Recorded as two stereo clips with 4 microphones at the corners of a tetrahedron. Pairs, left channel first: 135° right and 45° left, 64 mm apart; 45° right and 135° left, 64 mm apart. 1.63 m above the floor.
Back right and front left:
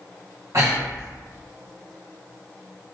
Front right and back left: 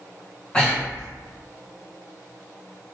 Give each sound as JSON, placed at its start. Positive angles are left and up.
{"t": 0.5, "sound": "breathing", "azimuth_deg": 25, "distance_m": 1.2}